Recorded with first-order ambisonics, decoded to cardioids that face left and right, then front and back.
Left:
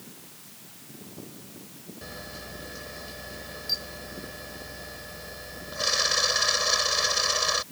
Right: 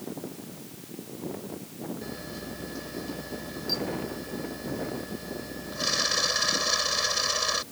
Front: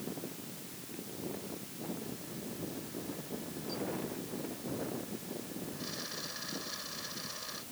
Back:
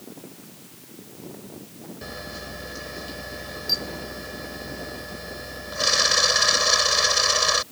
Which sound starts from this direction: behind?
A camera shutter, at 2.0 s.